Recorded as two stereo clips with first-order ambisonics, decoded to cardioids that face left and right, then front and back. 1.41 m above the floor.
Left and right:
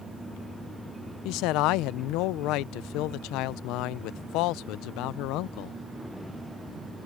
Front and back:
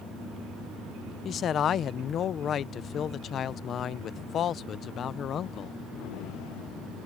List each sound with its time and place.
1.2 s a man speaking: 60° left